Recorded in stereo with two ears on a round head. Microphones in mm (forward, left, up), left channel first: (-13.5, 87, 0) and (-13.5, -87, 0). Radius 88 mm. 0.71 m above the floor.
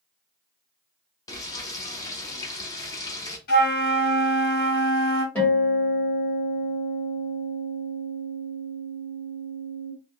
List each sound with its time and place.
1.3 s frying: 20° left (ahead or behind), 0.6 m
3.5 s a flute: 55° left (ahead or behind), 1.7 m
5.3 s a guitar: 5° left (ahead or behind), 1.8 m